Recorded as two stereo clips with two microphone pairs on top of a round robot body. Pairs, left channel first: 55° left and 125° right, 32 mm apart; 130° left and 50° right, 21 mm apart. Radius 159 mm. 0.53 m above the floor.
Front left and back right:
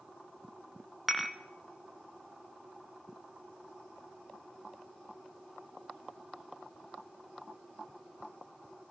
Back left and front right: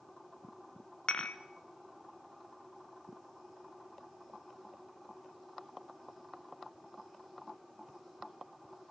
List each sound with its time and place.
1.1 s dishes clattering: 150° left, 1.0 m